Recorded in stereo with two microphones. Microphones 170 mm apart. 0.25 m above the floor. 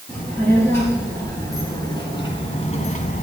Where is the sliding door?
No sliding door in this recording.